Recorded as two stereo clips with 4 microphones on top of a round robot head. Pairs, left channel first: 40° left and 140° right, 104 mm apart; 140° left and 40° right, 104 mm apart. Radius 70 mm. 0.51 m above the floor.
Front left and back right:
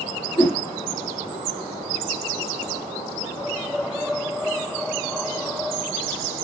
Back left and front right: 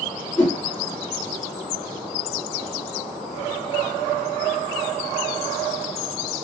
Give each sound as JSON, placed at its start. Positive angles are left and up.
{"t": 0.4, "sound": "a whoosh", "azimuth_deg": 65, "distance_m": 1.9}